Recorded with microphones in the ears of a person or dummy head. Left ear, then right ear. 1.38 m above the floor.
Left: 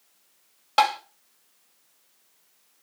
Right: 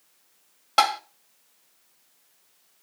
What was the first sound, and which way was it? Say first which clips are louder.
Tapping: even; 5° right (ahead or behind).